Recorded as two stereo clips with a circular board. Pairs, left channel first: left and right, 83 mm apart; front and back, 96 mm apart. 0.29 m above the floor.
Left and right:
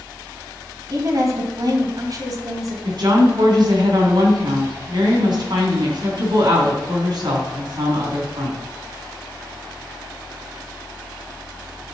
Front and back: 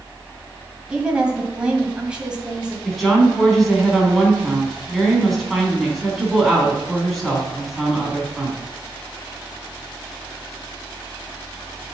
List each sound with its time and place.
0.9 s a woman speaking: 105° right, 2 m
2.9 s a woman speaking: 90° right, 3 m